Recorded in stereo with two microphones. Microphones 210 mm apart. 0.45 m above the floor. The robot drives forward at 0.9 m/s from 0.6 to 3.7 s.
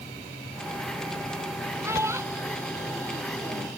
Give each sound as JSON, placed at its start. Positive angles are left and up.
{"t": 1.8, "sound": "a child speaking", "side_deg": -10}